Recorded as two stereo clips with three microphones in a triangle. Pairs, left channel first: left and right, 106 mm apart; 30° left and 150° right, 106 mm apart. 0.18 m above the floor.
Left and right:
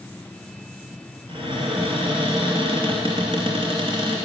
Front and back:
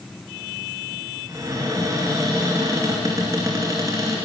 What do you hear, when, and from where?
1.3 s a cupboard door: 100° right, 2.5 m